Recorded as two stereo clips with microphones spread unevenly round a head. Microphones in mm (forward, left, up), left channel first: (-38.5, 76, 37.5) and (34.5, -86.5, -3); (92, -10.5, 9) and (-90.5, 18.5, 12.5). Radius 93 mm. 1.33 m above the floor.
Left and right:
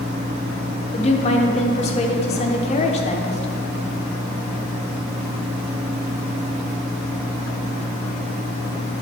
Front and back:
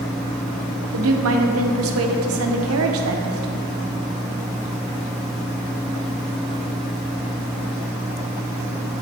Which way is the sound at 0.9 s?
175° left.